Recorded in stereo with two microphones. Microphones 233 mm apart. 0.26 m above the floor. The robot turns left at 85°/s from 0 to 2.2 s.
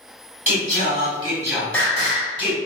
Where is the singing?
75° right, 1.6 m; by 2.6 s 135° left, 1.6 m.